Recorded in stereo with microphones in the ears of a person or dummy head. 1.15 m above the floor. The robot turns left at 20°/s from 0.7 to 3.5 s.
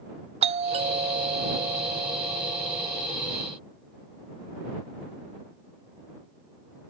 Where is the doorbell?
105° right; by 3.1 s 150° right.